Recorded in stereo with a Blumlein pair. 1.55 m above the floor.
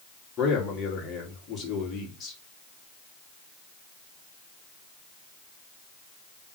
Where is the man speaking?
25° left, 2.5 m.